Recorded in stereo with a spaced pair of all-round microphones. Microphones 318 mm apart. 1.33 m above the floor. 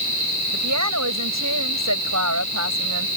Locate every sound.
0.5 s a woman speaking: 60° right (ahead or behind)